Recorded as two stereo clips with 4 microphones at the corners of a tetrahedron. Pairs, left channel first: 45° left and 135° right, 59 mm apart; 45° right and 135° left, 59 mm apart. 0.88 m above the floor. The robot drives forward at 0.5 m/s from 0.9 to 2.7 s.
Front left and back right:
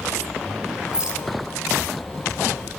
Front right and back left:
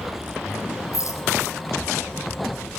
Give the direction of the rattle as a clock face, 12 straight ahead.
2 o'clock.